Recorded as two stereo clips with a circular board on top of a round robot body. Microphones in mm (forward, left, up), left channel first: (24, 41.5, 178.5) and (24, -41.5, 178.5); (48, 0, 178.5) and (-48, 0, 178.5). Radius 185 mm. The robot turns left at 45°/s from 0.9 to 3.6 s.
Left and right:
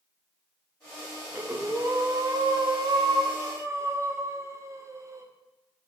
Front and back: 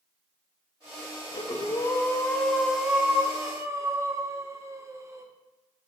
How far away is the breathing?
About 1.2 m.